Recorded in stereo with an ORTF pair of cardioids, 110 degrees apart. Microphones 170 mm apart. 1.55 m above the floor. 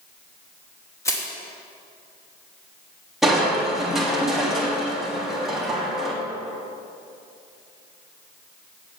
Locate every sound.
1.1 s crushing: 20° left, 2.5 m
3.2 s crushing: straight ahead, 2.5 m